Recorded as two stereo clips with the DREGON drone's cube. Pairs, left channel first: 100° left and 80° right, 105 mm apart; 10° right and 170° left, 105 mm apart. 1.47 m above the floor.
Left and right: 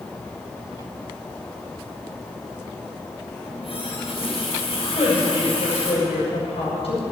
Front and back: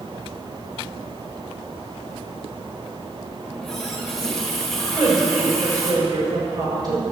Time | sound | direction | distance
3.4 | a running tap | 80° left | 4.5 m
4.9 | a woman speaking | 120° left | 7.5 m